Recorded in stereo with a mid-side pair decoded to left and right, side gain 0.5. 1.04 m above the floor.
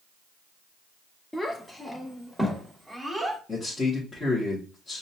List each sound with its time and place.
1.3 s a child speaking: 15° left, 1.5 m; by 3.4 s 10° right, 2 m
3.5 s a man speaking: 25° left, 2.0 m